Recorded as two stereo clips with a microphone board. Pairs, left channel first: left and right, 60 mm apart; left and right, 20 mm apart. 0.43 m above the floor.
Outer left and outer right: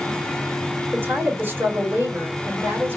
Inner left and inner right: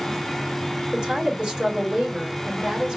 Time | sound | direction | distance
0.9 | a woman speaking | 40° right (ahead or behind) | 1.8 m